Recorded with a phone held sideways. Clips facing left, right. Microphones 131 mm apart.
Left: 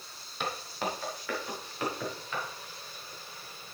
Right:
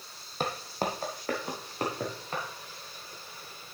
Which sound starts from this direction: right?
Footsteps, at 0.4 s.